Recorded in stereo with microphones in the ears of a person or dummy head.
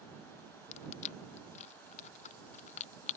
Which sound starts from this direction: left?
Crushing, at 0.7 s.